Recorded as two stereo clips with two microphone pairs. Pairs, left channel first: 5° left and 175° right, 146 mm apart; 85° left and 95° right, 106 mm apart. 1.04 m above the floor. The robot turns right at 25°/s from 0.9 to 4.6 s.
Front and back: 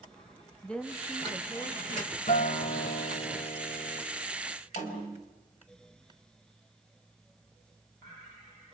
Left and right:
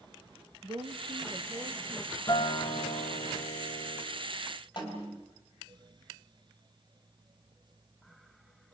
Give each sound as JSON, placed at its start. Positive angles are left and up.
{"t": 0.6, "sound": "a woman speaking", "azimuth_deg": -75, "distance_m": 1.2}
{"t": 2.3, "sound": "a guitar", "azimuth_deg": 30, "distance_m": 1.9}
{"t": 4.8, "sound": "a snare drum", "azimuth_deg": 40, "distance_m": 4.5}